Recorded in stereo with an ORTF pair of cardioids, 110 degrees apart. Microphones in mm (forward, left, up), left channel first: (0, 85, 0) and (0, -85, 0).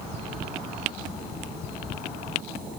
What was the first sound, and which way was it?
Only background noise.